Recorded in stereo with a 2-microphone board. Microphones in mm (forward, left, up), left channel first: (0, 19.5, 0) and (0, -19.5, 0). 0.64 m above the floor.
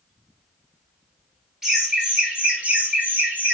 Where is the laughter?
10° right (ahead or behind), 1.2 m; by 3.5 s 45° right (ahead or behind), 1.5 m.